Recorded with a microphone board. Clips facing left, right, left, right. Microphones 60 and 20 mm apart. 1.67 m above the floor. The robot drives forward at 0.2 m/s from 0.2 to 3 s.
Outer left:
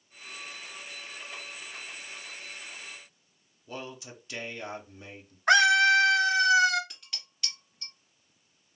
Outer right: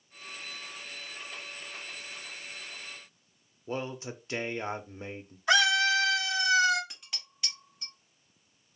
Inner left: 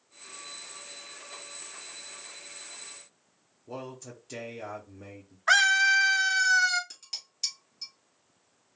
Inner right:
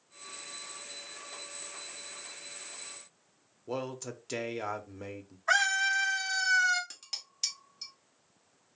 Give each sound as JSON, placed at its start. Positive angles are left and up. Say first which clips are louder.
{"t": 3.7, "sound": "a man speaking", "louder": "outer right 5 dB, inner right 4 dB", "side_deg": -35, "distance_m": 0.7}
{"t": 5.5, "sound": "a scream", "louder": "outer left 4 dB, inner left 6 dB", "side_deg": 55, "distance_m": 0.9}
{"t": 6.9, "sound": "dishes clattering", "louder": "outer right 1 dB, inner left 1 dB", "side_deg": -10, "distance_m": 1.7}